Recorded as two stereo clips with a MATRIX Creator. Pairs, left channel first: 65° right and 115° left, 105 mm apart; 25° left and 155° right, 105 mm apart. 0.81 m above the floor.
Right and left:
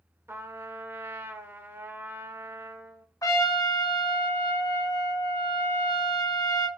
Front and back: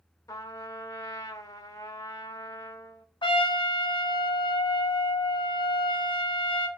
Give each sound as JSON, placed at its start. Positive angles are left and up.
{"t": 0.3, "sound": "a trumpet", "azimuth_deg": 55, "distance_m": 0.5}
{"t": 3.2, "sound": "a trumpet", "azimuth_deg": -10, "distance_m": 0.5}